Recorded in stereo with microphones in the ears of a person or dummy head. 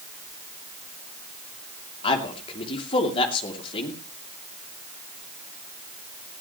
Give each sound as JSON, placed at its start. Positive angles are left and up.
{"t": 2.0, "sound": "a man speaking", "side_deg": 30, "distance_m": 2.5}